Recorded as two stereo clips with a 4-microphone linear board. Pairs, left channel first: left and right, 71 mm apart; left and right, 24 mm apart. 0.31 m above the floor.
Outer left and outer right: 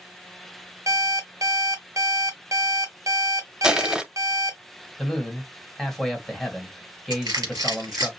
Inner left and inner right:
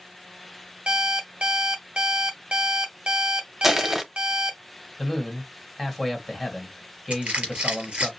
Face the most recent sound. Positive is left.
turn(degrees=-60)  # may be behind; listen again after turning